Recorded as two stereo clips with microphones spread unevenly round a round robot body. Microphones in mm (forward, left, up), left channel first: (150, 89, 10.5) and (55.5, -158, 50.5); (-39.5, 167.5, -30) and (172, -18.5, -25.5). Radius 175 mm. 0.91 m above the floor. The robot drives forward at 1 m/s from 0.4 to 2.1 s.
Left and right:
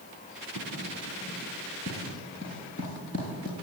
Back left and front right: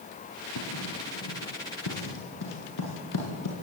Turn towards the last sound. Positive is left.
turn(degrees=140)